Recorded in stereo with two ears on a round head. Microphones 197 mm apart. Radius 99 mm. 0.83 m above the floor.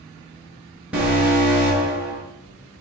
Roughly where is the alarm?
Centre.